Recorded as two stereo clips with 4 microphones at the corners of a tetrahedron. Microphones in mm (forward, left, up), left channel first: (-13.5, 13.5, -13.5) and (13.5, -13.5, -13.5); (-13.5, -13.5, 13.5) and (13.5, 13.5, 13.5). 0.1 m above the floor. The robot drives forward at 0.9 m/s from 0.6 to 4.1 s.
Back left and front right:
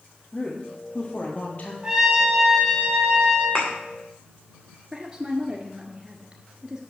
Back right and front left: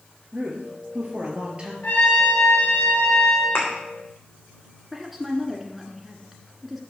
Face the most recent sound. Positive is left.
turn(degrees=-35)